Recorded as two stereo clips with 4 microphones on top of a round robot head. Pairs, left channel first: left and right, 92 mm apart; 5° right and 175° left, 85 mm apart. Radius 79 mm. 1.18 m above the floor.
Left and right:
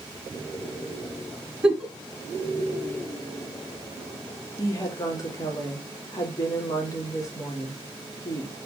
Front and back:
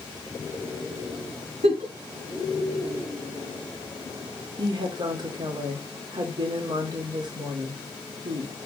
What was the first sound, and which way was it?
A giggle, 175° right.